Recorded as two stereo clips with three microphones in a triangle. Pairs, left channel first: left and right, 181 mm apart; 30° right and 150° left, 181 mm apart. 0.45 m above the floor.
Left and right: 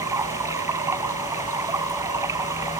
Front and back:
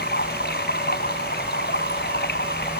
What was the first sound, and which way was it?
Running water, 15° right.